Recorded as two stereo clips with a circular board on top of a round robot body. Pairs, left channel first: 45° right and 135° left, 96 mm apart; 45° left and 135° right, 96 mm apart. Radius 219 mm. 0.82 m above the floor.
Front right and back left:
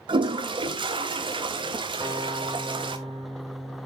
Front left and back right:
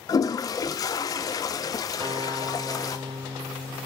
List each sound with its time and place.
0.1 s a toilet flushing: 95° left, 0.5 m
2.0 s a guitar: 170° right, 6.5 m